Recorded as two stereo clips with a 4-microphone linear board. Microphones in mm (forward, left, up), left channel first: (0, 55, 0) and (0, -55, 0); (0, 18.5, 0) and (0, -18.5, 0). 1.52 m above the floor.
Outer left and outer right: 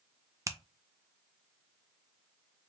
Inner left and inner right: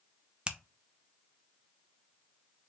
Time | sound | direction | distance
0.5 | a finger snap | 25° right (ahead or behind) | 0.6 m